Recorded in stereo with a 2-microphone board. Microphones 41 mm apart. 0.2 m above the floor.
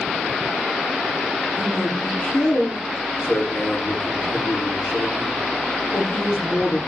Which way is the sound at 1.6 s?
70° left (ahead or behind).